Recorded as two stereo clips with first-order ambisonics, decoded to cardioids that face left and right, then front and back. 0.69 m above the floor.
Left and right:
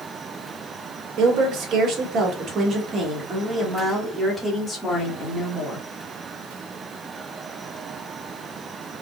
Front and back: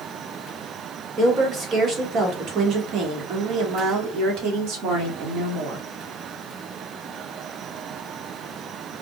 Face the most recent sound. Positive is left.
turn(degrees=165)